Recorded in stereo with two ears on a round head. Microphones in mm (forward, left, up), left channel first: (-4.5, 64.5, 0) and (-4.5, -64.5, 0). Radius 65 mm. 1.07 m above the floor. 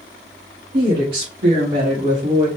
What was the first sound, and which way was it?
A woman speaking, 65° right (ahead or behind).